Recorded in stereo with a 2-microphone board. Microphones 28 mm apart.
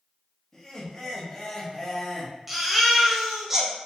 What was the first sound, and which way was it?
Laughter, 20° left (ahead or behind).